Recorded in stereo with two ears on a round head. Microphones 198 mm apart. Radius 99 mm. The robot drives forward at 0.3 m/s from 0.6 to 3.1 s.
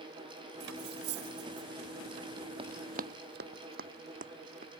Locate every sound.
0.6 s cutlery clinking: 80° right; by 1.7 s 75° right (ahead or behind)
2.6 s running footsteps: 25° right (ahead or behind); by 4.8 s 35° right (ahead or behind)